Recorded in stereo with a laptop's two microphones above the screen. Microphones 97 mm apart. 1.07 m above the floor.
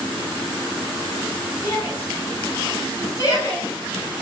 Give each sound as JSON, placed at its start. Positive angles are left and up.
{"t": 1.6, "sound": "a shout", "side_deg": 25, "distance_m": 8.5}